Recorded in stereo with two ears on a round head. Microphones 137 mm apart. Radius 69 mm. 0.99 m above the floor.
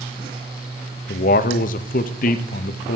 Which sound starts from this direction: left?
A man speaking, at 1.1 s.